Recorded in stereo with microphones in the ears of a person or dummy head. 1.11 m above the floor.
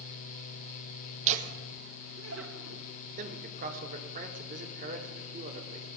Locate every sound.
1.3 s laughter: 35° right (ahead or behind), 1.5 m; by 2.8 s 60° right (ahead or behind), 2 m
3.2 s a man speaking: 45° right (ahead or behind), 3.5 m